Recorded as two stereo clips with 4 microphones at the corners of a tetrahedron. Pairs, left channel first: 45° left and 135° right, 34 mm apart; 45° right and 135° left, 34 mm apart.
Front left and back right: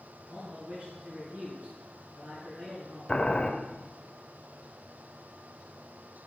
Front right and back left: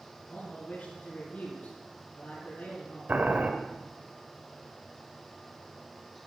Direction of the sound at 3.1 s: 110° left.